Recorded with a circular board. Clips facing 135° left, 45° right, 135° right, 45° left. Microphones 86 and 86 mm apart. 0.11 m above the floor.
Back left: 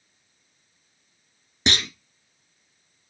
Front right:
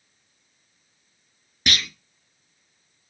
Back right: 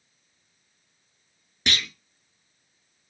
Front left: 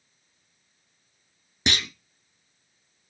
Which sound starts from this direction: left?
A clunk, at 1.7 s.